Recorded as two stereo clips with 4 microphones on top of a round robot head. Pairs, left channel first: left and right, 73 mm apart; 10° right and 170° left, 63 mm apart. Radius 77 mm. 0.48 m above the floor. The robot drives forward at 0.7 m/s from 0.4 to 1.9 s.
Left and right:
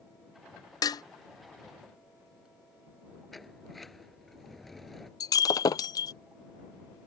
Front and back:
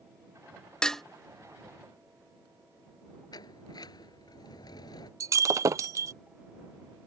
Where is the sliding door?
5° left.